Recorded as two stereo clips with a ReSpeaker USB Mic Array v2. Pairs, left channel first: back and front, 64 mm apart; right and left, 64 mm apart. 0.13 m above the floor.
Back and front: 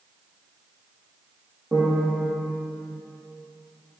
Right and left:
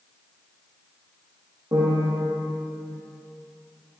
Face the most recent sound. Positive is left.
turn(degrees=65)